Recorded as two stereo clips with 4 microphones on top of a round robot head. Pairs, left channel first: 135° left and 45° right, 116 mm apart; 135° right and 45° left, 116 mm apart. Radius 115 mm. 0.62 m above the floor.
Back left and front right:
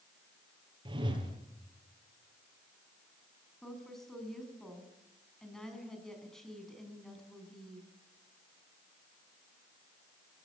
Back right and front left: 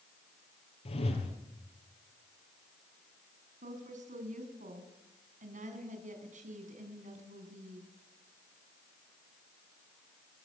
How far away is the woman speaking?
About 6 m.